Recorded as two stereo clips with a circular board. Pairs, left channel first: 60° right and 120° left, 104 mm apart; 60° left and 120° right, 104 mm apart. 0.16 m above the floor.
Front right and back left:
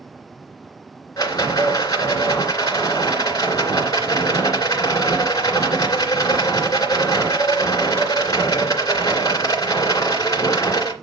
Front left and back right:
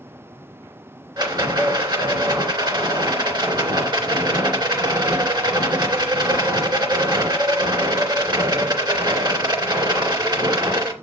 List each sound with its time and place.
1.2 s a rattle: 100° right, 2.5 m